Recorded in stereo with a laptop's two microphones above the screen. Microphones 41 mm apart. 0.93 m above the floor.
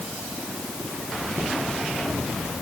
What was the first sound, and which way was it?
Only background noise.